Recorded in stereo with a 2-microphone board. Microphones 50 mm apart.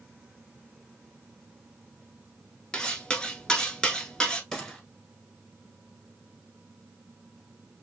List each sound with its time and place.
2.7 s cutlery clinking: 20° left (ahead or behind), 0.7 m
4.5 s a gunshot: 10° left (ahead or behind), 1.0 m